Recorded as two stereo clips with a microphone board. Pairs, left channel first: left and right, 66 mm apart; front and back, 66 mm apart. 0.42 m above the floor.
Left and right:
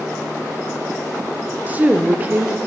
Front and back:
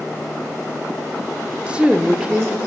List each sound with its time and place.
1.7 s a woman speaking: 120° right, 0.8 m